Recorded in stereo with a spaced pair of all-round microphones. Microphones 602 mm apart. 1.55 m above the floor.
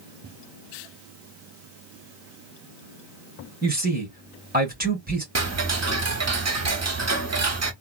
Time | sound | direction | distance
3.6 | a man speaking | 15° right (ahead or behind) | 1.7 m
5.3 | ticking | 30° right (ahead or behind) | 0.5 m